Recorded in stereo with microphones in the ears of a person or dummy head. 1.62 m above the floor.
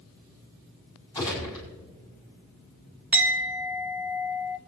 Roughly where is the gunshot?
Left.